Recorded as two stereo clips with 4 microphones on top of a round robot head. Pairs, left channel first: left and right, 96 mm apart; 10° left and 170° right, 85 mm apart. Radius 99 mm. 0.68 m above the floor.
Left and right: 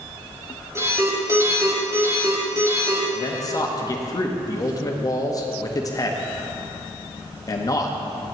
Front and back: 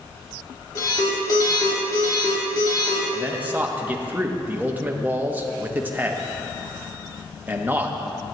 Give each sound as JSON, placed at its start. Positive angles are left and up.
{"t": 0.8, "sound": "an alarm", "azimuth_deg": -35, "distance_m": 3.0}
{"t": 3.1, "sound": "a man speaking", "azimuth_deg": 125, "distance_m": 0.9}